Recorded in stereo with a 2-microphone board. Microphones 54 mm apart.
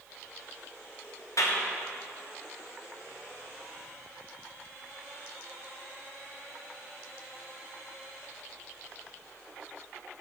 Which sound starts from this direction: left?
A clap, at 1.4 s.